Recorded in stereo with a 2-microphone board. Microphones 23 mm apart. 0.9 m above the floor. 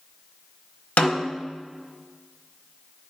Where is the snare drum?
75° left (ahead or behind), 1.0 m.